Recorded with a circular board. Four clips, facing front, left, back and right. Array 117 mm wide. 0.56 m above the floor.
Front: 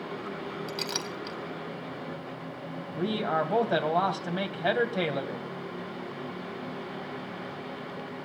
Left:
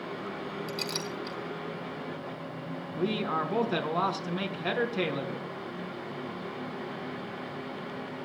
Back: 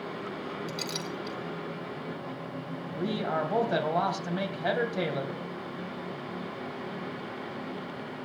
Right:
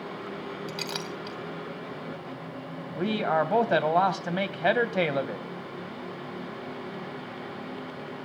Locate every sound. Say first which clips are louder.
0.7 s a clink: even, front 1 dB; 55° right, 2.5 m
3.0 s a man speaking: right 4 dB, front 2 dB; 80° right, 2.5 m